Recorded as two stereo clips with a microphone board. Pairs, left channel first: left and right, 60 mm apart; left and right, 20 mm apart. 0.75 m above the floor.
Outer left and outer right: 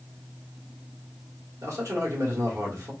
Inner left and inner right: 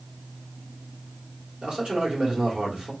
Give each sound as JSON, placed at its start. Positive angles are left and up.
{"t": 1.6, "sound": "a man speaking", "side_deg": -60, "distance_m": 1.8}